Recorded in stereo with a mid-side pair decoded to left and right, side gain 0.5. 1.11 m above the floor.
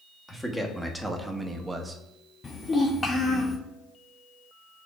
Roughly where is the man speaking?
Ahead.